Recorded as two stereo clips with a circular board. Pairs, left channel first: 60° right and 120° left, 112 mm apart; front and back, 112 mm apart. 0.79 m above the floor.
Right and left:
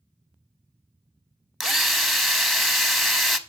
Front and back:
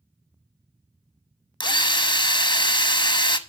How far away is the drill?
About 0.8 m.